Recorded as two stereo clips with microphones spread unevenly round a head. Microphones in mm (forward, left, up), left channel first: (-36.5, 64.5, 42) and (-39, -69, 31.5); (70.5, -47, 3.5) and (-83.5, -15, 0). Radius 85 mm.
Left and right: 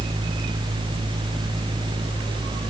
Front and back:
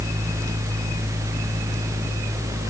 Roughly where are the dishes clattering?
No dishes clattering in this recording.